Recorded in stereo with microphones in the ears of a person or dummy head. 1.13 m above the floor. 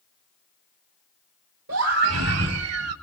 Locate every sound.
1.7 s a scream: 65° right (ahead or behind), 1.6 m; by 2.9 s 70° right (ahead or behind), 2 m